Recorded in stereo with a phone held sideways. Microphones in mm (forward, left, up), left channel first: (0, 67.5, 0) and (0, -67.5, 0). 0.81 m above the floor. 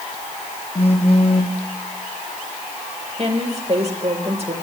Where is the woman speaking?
50° right (ahead or behind), 2.5 m.